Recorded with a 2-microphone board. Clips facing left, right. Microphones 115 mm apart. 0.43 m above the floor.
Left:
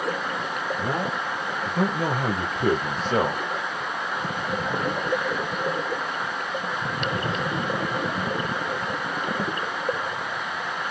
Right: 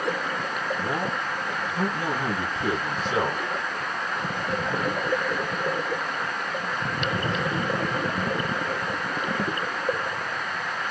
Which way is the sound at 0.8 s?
60° left (ahead or behind).